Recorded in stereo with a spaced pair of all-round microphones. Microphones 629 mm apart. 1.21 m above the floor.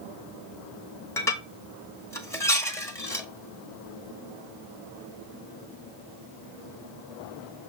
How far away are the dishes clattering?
About 1.3 m.